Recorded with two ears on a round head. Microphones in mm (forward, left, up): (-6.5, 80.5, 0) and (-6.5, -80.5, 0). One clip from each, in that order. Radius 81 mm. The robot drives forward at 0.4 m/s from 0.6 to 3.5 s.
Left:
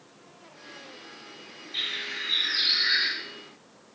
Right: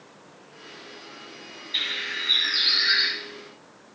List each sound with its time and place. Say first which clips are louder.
1.7 s a bird: right 4 dB; 40° right (ahead or behind), 8 m